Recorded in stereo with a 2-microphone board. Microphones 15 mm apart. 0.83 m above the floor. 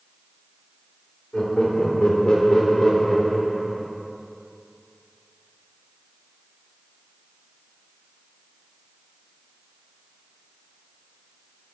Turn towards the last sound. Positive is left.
turn(degrees=0)  # may be behind; listen again after turning